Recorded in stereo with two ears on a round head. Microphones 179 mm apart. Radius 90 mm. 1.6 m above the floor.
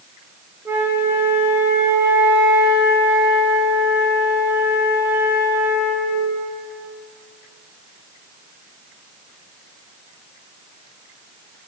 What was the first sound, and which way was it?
A flute, 10° right (ahead or behind).